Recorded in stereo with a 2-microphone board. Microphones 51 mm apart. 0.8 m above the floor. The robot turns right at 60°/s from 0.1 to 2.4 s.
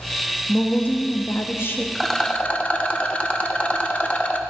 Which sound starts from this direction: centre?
A rattle, at 1.9 s.